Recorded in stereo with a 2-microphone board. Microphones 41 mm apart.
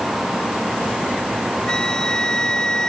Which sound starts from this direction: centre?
A flute, at 1.7 s.